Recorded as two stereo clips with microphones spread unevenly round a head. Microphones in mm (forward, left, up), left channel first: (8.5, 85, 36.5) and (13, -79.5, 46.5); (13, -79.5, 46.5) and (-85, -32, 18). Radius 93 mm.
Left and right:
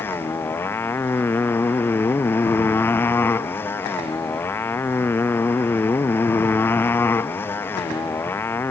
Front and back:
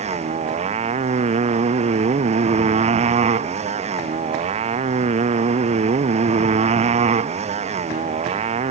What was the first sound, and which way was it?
A motorcycle, 170° left.